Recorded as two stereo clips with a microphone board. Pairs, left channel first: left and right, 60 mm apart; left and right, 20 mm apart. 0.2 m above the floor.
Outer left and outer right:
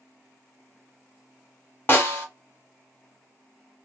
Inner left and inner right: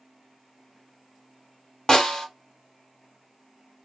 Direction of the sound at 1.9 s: 30° left (ahead or behind).